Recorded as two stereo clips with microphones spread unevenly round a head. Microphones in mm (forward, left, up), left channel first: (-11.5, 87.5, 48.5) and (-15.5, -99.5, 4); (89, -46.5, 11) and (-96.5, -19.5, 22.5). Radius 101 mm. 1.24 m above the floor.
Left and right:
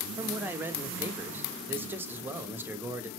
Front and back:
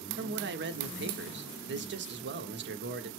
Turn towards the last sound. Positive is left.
turn(degrees=-165)